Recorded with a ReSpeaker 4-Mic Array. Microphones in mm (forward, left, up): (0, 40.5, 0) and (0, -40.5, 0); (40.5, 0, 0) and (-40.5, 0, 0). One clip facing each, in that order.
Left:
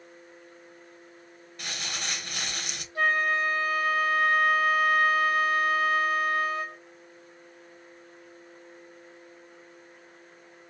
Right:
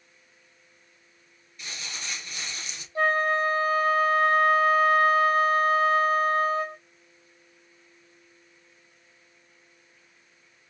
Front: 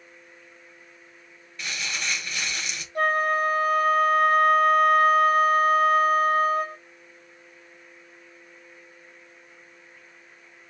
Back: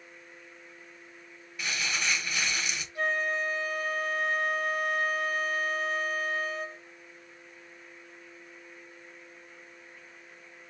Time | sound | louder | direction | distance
1.6 | crumpling | left 3 dB, even | 100° left | 1.1 m
3.0 | a flute | right 2 dB, front 7 dB | 35° right | 0.9 m